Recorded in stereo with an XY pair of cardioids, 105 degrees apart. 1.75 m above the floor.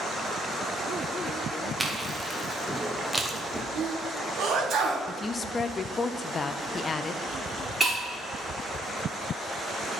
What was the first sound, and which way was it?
Chewing, 10° right.